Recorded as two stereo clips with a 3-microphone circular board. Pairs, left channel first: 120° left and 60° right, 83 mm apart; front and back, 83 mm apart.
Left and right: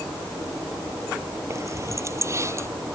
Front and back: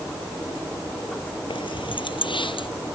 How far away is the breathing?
No breathing in this recording.